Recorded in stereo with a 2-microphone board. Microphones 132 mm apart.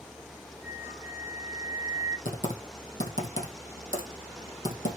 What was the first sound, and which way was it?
A flute, 80° right.